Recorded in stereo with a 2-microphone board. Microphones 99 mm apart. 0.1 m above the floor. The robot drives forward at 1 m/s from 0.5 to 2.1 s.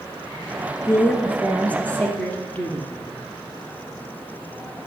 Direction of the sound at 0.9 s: 20° left (ahead or behind).